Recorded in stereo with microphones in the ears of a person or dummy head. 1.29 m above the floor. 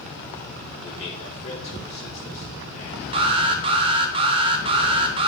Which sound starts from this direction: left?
A man speaking, at 0.8 s.